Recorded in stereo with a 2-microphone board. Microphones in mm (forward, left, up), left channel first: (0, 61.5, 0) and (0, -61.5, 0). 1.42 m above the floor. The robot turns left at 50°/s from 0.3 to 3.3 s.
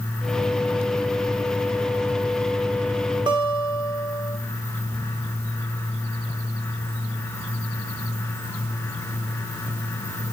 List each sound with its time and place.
3.3 s a guitar: 40° right (ahead or behind), 2 m